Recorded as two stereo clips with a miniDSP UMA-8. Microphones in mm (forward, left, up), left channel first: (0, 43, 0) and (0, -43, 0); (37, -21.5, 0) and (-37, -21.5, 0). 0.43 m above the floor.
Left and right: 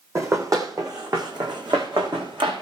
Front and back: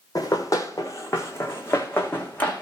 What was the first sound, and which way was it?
Running footsteps, 35° right.